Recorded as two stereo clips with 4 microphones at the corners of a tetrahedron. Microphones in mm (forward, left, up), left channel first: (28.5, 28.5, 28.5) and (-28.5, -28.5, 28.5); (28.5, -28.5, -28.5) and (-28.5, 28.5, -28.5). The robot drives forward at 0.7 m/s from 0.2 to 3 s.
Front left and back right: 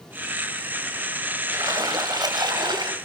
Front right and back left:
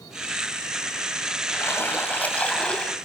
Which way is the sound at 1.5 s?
105° right.